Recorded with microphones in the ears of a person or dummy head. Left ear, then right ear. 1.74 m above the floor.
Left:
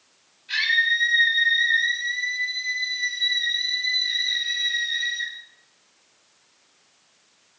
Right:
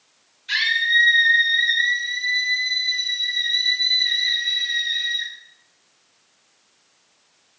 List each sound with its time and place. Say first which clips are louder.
0.5 s a scream: right 2 dB; 50° right (ahead or behind), 8 m; by 5.3 s 30° right (ahead or behind), 8.5 m